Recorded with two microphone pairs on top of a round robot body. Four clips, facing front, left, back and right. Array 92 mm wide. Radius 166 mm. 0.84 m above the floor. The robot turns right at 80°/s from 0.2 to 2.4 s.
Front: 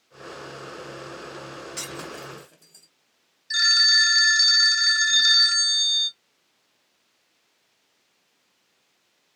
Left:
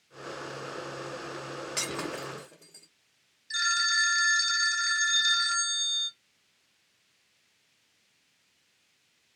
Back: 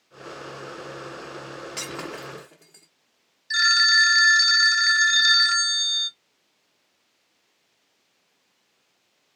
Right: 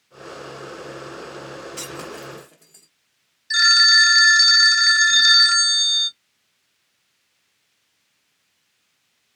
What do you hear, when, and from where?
1.8 s breaking glass: 140° left, 1.2 m; by 2.9 s 170° right, 1.2 m
3.5 s a phone ringing: 100° right, 0.5 m